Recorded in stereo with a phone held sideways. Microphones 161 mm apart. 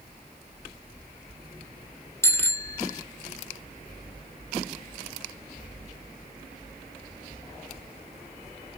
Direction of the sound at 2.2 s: 15° left (ahead or behind).